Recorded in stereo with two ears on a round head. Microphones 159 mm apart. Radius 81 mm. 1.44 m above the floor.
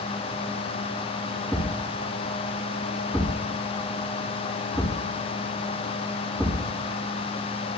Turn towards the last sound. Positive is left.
turn(degrees=-5)  # may be behind; listen again after turning